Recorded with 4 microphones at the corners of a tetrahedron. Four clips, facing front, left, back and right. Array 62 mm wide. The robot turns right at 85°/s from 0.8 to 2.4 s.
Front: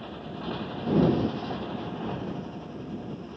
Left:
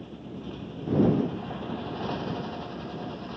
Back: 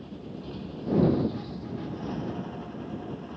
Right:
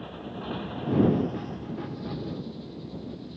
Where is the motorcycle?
40° right; by 3.4 s 100° left.